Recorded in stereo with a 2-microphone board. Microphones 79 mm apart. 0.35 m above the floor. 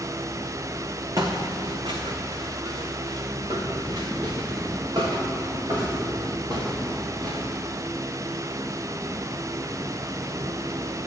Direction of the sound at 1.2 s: 50° right (ahead or behind).